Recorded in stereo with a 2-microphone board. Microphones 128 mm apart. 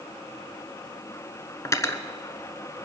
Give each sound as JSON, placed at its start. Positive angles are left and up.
{"t": 1.6, "sound": "cutlery clinking", "side_deg": 25, "distance_m": 0.9}